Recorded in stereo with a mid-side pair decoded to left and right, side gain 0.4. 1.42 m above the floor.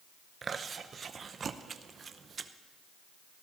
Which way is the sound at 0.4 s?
50° right.